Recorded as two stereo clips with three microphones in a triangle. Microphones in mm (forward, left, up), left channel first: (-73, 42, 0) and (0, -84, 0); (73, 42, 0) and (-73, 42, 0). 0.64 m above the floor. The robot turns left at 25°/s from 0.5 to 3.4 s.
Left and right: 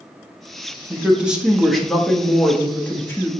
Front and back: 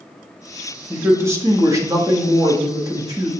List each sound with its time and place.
0.9 s a woman speaking: 130° right, 0.8 m; by 3.3 s 170° left, 0.8 m